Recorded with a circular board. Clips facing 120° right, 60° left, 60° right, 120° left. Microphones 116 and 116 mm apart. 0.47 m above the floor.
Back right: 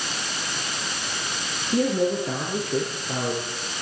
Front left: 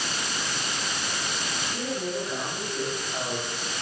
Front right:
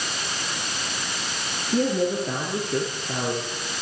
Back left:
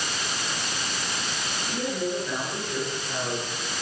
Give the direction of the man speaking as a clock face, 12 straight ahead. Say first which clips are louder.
Back right 10 dB, front right 7 dB; 3 o'clock.